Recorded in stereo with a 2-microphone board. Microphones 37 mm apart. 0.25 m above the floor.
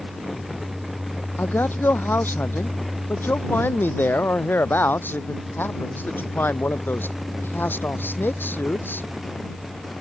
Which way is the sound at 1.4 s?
85° left.